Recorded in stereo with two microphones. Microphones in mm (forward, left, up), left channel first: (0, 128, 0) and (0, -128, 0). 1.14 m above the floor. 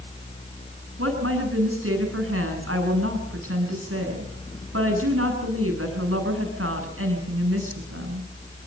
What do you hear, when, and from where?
1.0 s a woman speaking: 60° right (ahead or behind), 9 m